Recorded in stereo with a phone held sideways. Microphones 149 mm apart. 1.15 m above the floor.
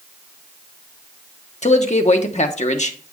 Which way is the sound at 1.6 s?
50° left (ahead or behind).